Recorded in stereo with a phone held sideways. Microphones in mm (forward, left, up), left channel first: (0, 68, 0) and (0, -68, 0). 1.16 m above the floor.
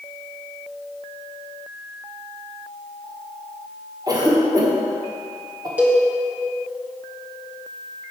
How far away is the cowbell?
About 1.2 m.